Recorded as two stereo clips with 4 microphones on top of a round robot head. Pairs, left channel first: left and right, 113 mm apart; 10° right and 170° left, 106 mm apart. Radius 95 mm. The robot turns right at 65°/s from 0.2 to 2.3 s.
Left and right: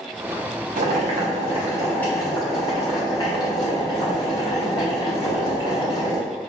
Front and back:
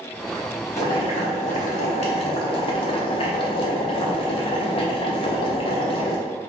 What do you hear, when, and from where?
0.8 s boiling: 70° right, 0.9 m; by 6.2 s 30° left, 0.9 m